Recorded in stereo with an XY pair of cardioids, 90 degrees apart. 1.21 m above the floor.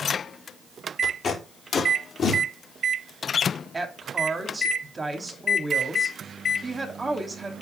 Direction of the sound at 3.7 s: 25° right.